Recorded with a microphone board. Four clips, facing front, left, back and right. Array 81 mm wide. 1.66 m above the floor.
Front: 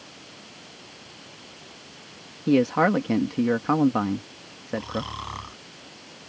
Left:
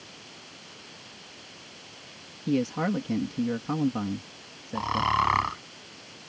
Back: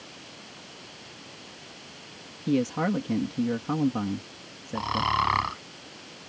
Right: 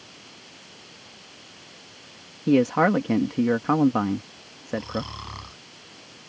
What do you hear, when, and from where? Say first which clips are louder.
2.5 s a man speaking: right 8 dB, front 6 dB; 60° right
4.8 s snoring: left 6 dB, back 6 dB; 120° left